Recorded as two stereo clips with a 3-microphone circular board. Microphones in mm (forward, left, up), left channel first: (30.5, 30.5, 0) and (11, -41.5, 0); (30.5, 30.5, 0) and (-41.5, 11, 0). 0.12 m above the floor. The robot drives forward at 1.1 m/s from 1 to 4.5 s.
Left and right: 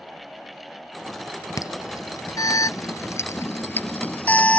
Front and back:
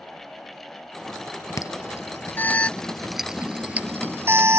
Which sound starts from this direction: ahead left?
An alarm, at 1.6 s.